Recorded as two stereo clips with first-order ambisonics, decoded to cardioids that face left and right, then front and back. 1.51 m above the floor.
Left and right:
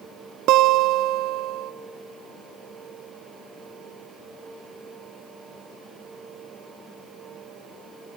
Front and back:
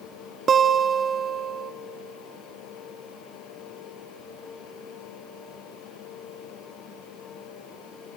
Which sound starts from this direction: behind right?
A guitar, at 0.5 s.